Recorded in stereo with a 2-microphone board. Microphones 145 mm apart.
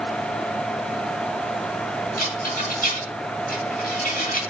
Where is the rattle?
70° left (ahead or behind), 2 m.